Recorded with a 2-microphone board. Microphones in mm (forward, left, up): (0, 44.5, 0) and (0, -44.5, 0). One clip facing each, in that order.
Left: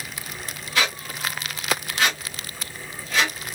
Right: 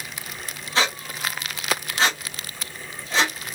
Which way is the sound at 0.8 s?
30° right (ahead or behind).